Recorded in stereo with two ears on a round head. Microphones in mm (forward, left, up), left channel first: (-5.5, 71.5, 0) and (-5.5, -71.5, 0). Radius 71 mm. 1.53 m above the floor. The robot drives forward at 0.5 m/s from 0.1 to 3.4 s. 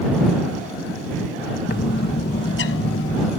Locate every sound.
1.7 s a bird: 65° left (ahead or behind); by 3.3 s 85° left